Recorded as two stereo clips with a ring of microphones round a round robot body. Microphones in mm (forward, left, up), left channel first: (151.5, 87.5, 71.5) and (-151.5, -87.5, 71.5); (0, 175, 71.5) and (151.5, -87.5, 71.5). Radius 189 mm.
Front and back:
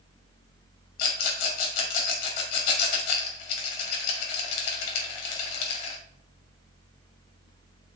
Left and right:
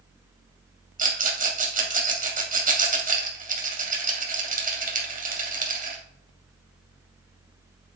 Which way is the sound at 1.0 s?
5° left.